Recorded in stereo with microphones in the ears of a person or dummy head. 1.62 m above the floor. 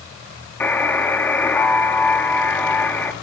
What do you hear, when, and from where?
0.6 s a buzzer: 10° left (ahead or behind), 2.5 m